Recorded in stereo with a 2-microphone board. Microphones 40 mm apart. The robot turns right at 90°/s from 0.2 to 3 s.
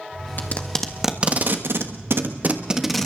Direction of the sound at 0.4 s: 50° left (ahead or behind).